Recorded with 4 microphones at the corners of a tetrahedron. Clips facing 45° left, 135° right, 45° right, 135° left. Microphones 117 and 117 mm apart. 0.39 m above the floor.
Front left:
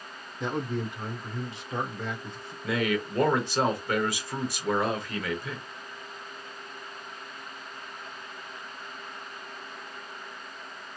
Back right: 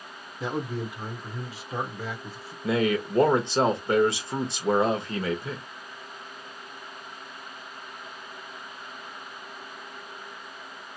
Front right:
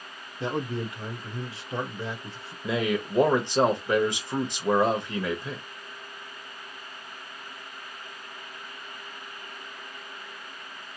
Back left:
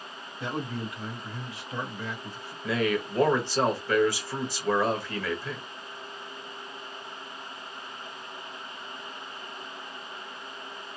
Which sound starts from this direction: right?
A man speaking, at 2.6 s.